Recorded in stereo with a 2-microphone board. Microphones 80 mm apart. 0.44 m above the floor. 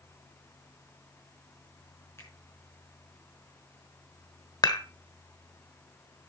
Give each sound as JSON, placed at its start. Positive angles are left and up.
{"t": 2.2, "sound": "a finger snap", "side_deg": 35, "distance_m": 4.5}
{"t": 4.6, "sound": "dishes clattering", "side_deg": 55, "distance_m": 1.2}